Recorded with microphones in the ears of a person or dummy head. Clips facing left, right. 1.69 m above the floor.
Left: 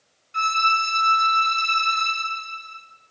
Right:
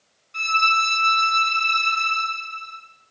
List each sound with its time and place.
0.3 s a violin: 20° left (ahead or behind), 2.5 m